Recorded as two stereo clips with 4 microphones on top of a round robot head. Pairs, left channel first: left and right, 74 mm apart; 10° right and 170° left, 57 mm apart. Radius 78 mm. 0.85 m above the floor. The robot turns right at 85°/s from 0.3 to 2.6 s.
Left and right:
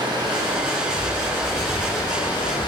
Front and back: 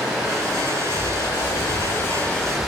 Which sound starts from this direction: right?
Running water, at 0.0 s.